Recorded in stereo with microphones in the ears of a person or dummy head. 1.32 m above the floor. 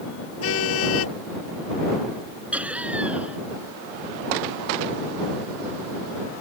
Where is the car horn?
90° left.